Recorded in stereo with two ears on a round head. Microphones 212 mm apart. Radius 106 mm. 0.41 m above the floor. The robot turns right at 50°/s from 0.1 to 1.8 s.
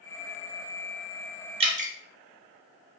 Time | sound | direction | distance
1.6 | dripping | 20° right (ahead or behind) | 0.5 m